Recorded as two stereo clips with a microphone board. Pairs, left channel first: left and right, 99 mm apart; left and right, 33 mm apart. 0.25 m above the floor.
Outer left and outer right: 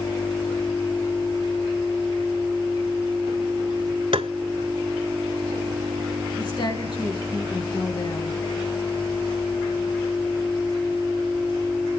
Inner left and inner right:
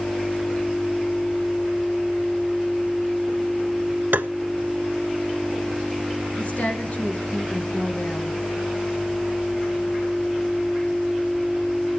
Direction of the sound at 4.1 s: 80° right.